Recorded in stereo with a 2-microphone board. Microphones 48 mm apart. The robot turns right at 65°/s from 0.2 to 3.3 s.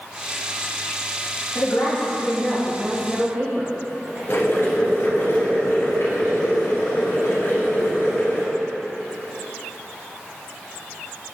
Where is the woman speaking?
95° left, 2.5 m; by 4.2 s 150° right, 2.5 m.